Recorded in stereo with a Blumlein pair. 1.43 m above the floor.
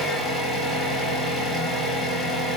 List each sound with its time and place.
0.0 s an engine running: straight ahead, 0.9 m